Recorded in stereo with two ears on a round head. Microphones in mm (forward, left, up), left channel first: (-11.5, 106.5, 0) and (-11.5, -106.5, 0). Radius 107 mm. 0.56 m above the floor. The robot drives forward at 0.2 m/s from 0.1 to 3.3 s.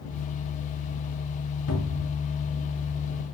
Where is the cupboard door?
70° left (ahead or behind), 4 m.